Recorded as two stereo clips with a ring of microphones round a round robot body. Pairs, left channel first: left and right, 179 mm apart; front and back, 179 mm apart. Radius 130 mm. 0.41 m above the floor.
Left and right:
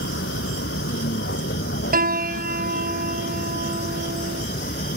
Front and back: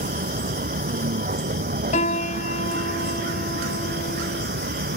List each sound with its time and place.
0.0 s a vehicle: 140° left; by 5.0 s 150° left
1.9 s a piano: 60° right